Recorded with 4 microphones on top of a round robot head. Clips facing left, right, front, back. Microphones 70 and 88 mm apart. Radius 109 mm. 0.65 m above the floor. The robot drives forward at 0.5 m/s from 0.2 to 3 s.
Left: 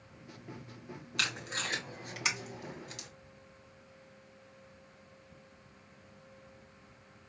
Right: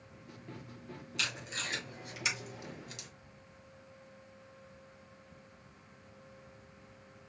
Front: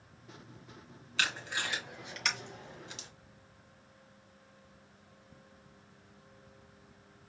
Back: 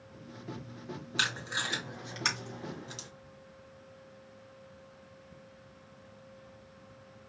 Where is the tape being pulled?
110° left, 2.5 m; by 3.1 s 130° left, 3 m.